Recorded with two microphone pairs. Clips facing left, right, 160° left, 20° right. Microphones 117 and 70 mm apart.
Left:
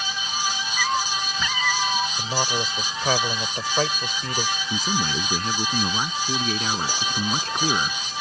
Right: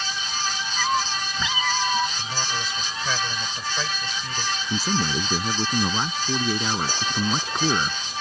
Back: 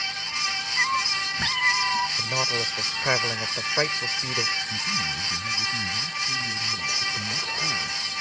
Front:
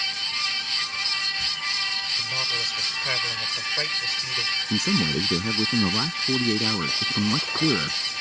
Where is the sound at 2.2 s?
110° left.